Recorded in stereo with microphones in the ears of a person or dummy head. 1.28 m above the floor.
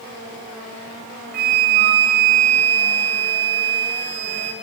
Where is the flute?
45° right (ahead or behind), 1.0 m.